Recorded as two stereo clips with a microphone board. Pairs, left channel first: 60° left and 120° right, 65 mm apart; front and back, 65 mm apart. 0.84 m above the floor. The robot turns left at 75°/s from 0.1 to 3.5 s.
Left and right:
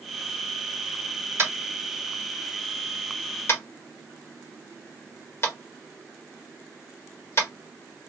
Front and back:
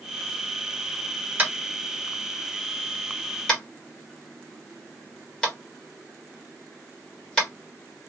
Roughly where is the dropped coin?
I don't hear a dropped coin.